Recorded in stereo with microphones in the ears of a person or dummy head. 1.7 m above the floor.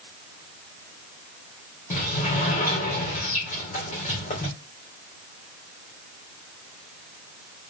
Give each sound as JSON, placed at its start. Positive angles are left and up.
{"t": 1.9, "sound": "a sliding door", "side_deg": 40, "distance_m": 2.5}